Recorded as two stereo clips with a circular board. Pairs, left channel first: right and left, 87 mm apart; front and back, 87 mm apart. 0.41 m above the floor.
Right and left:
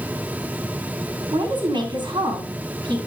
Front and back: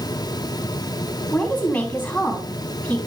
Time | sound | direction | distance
1.3 | a woman speaking | 70° left | 3.5 m